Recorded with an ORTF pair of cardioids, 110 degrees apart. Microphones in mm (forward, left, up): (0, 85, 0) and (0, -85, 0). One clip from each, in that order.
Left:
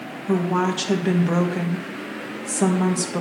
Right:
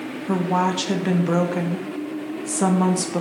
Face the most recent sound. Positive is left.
turn(degrees=-5)